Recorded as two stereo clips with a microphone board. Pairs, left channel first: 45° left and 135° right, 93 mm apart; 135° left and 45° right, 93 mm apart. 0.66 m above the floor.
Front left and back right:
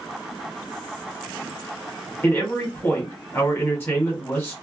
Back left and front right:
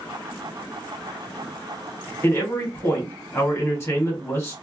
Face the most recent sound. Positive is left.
turn(degrees=95)